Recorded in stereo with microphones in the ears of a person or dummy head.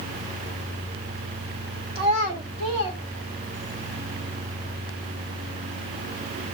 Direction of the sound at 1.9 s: 25° right (ahead or behind).